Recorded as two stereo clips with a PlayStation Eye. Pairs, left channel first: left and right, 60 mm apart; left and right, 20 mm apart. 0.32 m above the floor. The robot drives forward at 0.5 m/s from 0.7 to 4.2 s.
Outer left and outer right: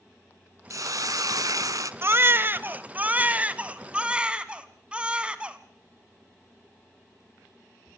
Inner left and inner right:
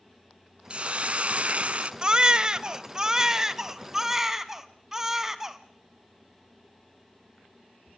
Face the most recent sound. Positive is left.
turn(degrees=-20)  # may be behind; listen again after turning